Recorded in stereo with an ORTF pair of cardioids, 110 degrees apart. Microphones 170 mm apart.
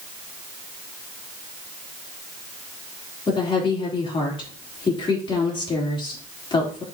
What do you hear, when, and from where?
3.3 s a woman speaking: 30° left, 3.5 m